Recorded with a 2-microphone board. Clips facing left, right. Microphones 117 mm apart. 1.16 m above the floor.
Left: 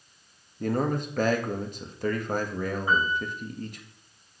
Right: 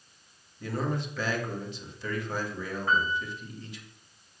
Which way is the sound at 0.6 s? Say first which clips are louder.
Left 5 dB; 50° left (ahead or behind).